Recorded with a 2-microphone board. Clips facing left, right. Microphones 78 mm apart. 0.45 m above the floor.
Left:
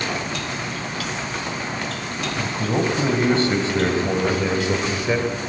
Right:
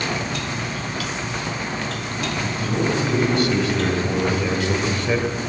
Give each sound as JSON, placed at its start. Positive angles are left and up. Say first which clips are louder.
{"t": 2.4, "sound": "a man speaking", "louder": "left 2 dB", "side_deg": 40, "distance_m": 3.0}